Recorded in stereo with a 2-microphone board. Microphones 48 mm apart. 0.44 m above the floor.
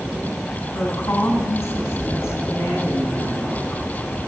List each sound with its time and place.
0.7 s a woman speaking: 75° left (ahead or behind), 4 m